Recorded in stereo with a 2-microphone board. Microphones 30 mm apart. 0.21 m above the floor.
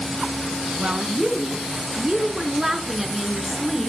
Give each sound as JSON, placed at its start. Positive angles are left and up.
{"t": 0.8, "sound": "a woman speaking", "side_deg": -40, "distance_m": 2.0}